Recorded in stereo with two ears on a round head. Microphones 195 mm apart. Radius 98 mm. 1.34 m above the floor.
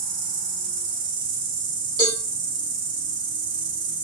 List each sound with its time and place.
0.0 s an insect: 55° right (ahead or behind), 1.7 m
2.0 s a cowbell: 20° right (ahead or behind), 1.7 m